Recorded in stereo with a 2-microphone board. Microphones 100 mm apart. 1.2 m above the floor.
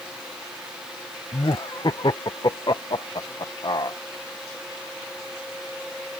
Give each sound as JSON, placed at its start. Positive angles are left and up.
{"t": 1.3, "sound": "laughter", "side_deg": 45}